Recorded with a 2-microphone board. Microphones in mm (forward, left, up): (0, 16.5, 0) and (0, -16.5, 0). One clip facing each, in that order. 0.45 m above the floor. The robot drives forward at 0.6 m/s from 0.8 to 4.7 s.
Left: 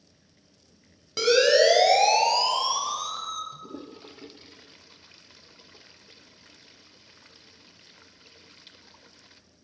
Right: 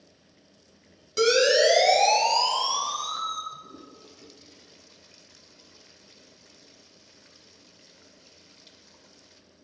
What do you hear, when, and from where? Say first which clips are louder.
1.2 s a siren: left 1 dB; 20° left (ahead or behind), 3 m; by 3.4 s 5° right (ahead or behind), 2.5 m
3.5 s a toilet flushing: left 3 dB; 40° left (ahead or behind), 0.6 m; by 9.4 s 25° left (ahead or behind), 0.8 m